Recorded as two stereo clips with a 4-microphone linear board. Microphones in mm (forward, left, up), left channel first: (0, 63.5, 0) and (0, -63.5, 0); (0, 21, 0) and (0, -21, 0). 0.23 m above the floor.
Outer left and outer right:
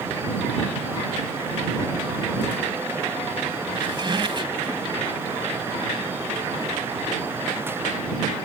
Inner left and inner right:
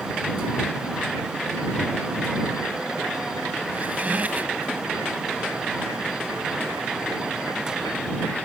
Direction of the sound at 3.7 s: 40° right (ahead or behind).